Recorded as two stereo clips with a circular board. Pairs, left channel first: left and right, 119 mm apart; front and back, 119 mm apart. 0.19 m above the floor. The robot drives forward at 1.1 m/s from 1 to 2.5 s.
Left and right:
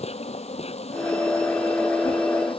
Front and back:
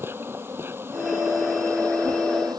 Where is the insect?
110° left; by 2.6 s 125° left.